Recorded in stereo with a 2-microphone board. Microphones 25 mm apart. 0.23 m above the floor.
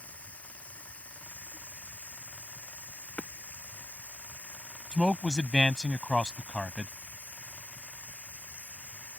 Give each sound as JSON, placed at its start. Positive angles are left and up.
{"t": 0.0, "sound": "running water", "side_deg": 80}
{"t": 3.2, "sound": "hammering", "side_deg": 55}
{"t": 4.9, "sound": "a man speaking", "side_deg": 25}